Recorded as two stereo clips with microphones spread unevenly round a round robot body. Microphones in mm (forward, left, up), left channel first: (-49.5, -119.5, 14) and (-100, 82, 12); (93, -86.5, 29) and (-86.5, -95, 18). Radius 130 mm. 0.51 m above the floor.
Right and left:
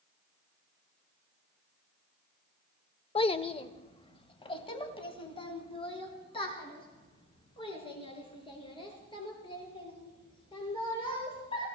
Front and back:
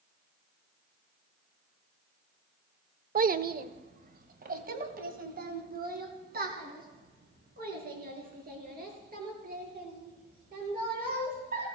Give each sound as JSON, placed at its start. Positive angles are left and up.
{"t": 3.1, "sound": "a child speaking", "azimuth_deg": -140, "distance_m": 0.7}